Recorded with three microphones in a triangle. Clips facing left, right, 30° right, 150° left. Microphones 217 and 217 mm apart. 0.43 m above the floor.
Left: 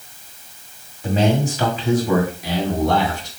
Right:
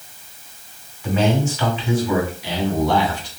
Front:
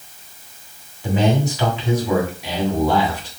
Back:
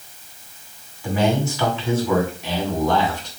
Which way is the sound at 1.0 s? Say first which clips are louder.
Left 1 dB, front 1 dB; 35° left.